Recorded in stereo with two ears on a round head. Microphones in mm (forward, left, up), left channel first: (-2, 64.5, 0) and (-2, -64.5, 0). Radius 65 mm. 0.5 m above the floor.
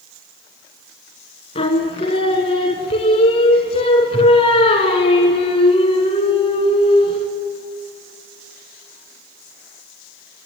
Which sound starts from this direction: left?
Singing, at 1.6 s.